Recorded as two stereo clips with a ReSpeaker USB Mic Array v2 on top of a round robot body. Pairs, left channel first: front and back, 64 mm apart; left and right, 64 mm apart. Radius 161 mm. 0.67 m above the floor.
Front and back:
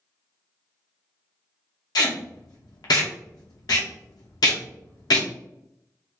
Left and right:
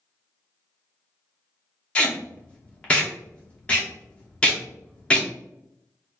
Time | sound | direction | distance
1.9 | tape being pulled | 20° left | 0.7 m